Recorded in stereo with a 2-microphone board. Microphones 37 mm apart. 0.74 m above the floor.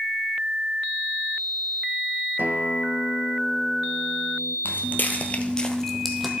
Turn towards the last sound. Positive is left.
turn(degrees=-5)  # may be behind; listen again after turning